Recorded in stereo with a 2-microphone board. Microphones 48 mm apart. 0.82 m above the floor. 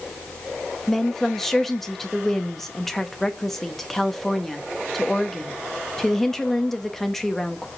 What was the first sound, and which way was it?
A woman speaking, 5° left (ahead or behind).